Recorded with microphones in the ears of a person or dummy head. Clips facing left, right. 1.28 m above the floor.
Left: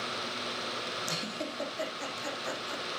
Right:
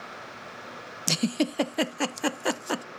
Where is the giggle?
85° right, 0.5 m.